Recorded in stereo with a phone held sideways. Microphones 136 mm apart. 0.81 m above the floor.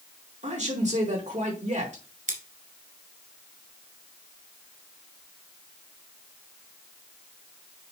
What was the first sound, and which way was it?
A man speaking, 60° right (ahead or behind).